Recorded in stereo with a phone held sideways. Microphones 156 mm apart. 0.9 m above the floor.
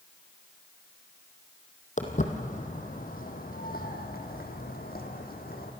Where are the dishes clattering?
No dishes clattering in this recording.